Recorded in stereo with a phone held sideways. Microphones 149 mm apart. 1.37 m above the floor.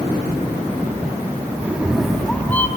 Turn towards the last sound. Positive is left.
turn(degrees=15)  # may be behind; listen again after turning